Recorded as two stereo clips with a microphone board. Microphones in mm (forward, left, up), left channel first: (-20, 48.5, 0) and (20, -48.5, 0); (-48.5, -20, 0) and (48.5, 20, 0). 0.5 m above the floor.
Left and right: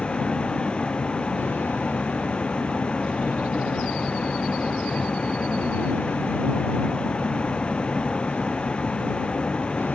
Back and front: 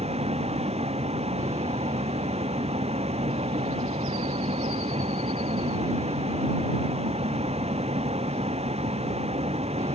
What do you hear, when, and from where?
0.0 s a vehicle: 30° left